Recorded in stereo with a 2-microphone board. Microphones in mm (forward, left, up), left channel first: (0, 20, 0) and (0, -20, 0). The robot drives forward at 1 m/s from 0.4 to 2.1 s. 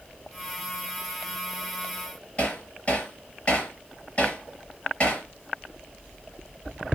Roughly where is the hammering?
Left.